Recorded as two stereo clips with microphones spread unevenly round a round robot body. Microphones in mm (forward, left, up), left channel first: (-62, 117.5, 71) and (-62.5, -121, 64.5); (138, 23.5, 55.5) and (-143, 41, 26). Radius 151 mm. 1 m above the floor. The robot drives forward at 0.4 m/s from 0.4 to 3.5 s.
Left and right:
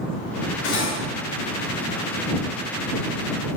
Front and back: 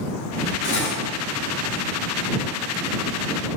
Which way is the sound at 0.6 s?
45° left.